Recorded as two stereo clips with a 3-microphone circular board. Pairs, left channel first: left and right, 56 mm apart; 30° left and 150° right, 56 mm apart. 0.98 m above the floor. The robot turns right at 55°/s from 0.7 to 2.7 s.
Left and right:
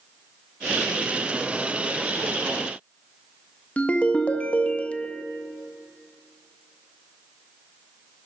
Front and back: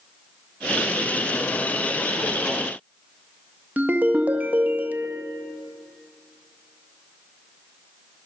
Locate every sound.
3.8 s a ringtone: 155° left, 0.5 m